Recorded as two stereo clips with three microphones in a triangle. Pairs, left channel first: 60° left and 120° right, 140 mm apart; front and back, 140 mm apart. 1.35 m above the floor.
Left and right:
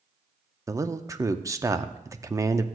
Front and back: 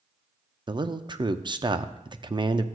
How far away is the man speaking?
About 0.5 m.